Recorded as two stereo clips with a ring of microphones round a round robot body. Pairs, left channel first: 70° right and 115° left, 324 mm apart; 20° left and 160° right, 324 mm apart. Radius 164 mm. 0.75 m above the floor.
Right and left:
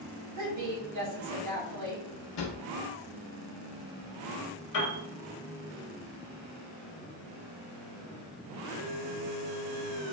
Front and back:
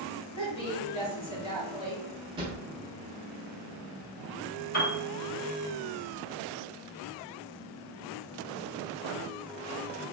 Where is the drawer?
80° right, 0.7 m.